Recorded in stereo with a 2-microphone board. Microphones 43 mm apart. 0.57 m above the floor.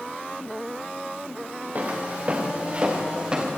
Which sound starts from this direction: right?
Footsteps, at 1.8 s.